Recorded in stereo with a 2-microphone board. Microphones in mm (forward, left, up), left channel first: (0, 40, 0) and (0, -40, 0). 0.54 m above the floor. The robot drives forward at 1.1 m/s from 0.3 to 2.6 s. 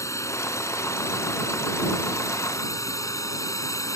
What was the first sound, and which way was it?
A drone, 40° left (ahead or behind).